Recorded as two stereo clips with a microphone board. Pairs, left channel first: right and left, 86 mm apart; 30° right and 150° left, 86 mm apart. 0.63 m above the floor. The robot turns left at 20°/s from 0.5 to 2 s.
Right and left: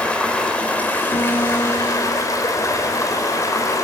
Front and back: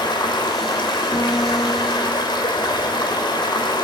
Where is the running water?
15° right, 2.5 m; by 3.8 s 45° right, 2.5 m.